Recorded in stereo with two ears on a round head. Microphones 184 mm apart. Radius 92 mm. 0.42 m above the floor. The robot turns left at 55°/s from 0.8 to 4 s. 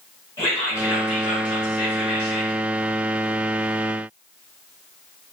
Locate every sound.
0.4 s whispering: 160° left, 1.2 m; by 2.6 s 65° left, 1.2 m